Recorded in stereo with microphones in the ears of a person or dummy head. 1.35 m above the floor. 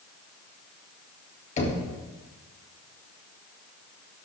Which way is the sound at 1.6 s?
40° left (ahead or behind).